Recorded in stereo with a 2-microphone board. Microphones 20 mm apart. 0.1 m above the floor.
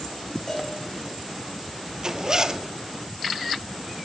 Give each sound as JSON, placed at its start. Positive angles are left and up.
{"t": 0.5, "sound": "a cowbell", "side_deg": 30, "distance_m": 6.5}
{"t": 2.0, "sound": "a zipper", "side_deg": -35, "distance_m": 0.7}